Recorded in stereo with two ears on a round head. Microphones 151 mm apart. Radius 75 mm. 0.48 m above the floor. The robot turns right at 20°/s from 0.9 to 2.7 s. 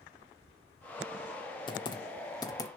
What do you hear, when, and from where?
1.7 s typing on a keyboard: 30° left (ahead or behind), 0.8 m; by 2.7 s 20° left (ahead or behind), 0.8 m